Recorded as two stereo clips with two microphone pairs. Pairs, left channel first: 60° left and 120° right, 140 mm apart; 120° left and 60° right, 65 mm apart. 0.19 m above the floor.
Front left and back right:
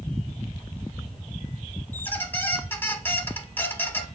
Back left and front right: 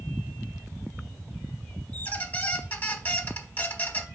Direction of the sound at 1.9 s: 120° left.